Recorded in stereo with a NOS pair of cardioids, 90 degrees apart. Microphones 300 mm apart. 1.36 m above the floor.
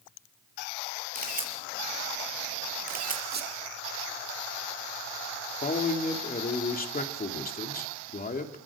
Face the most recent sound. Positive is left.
turn(degrees=30)